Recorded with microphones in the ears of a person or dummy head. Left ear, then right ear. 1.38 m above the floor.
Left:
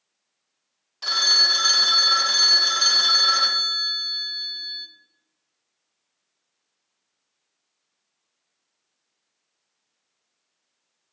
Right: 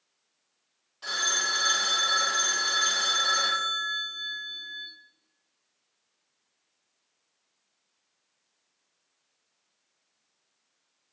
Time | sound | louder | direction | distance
1.0 | a phone ringing | left 10 dB | 35° left (ahead or behind) | 0.5 m